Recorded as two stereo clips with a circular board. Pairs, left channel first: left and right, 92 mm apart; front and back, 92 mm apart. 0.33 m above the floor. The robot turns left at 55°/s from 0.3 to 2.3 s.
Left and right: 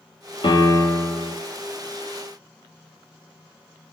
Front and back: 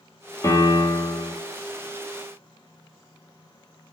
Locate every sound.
0.4 s a piano: 60° left, 1.1 m; by 1.3 s 10° left, 1.1 m